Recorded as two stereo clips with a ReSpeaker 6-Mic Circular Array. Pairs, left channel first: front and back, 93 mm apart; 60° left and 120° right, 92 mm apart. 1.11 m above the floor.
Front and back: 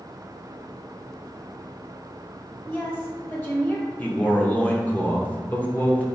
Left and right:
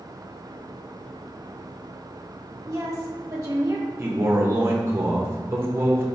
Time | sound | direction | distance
2.6 | a woman speaking | 65° right | 1.2 m
4.0 | a man speaking | 65° right | 0.8 m